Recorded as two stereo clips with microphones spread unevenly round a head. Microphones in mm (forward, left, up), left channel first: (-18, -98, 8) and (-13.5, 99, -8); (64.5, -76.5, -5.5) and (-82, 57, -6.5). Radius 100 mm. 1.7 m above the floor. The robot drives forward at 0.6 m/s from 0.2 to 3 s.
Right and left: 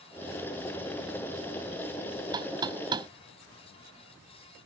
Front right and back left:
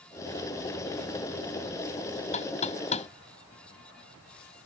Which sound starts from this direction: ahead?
Knocking, at 2.3 s.